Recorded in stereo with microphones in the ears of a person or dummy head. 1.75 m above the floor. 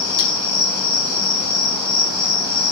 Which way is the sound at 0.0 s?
45° right (ahead or behind).